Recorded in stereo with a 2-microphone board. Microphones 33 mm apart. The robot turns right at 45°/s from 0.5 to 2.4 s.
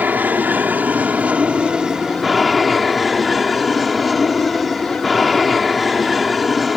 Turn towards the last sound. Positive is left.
turn(degrees=-5)